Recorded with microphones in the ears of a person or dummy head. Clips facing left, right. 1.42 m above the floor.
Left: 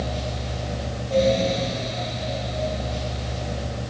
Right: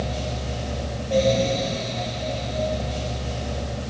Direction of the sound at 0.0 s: 20° right (ahead or behind).